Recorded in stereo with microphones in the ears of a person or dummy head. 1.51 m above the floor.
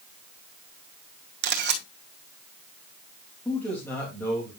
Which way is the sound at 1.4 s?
65° right (ahead or behind).